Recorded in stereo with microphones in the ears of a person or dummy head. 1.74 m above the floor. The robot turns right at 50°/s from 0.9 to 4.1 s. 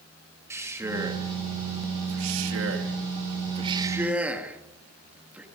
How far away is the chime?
I don't hear a chime.